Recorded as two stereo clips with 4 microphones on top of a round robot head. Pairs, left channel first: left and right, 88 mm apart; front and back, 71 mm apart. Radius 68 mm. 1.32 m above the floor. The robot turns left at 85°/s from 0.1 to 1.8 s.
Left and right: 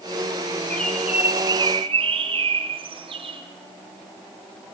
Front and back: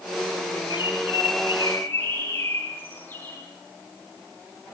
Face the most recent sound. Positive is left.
turn(degrees=-75)